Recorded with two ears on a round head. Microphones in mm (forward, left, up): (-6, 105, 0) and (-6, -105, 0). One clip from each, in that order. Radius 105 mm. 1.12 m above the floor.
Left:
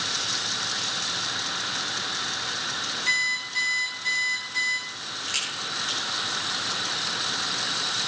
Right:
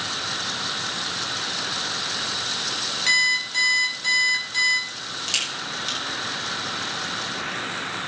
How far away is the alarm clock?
About 5 m.